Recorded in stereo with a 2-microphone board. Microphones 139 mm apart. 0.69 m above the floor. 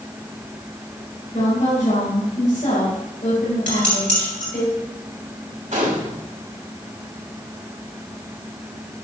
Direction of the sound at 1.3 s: 50° left (ahead or behind).